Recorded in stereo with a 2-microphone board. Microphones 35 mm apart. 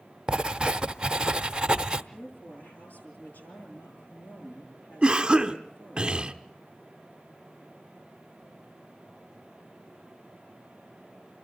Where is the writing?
25° right (ahead or behind), 0.7 m.